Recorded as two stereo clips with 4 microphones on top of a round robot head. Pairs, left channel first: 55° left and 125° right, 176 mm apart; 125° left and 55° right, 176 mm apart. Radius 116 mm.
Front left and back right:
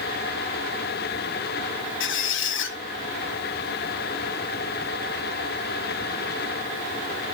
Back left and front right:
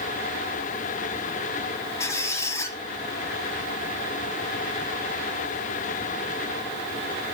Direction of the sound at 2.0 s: 50° left.